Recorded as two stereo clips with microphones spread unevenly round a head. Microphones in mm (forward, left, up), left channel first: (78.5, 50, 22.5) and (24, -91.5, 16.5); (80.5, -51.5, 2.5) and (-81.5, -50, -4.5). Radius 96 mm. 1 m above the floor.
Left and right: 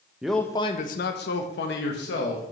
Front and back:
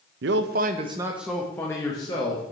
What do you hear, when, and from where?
0.2 s a man speaking: 165° left, 0.5 m; by 2.5 s 65° left, 1.3 m